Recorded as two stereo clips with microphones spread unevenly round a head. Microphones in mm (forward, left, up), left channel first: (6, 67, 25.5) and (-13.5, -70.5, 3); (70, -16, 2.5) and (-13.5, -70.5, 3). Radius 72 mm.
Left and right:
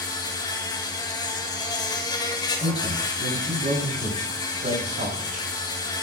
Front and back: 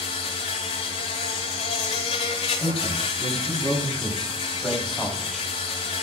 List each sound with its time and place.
0.0 s an insect: 15° left, 4 m
2.6 s a man speaking: 55° right, 7.5 m